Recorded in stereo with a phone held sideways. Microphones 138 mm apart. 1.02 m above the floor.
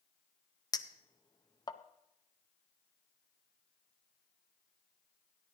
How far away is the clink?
About 0.6 m.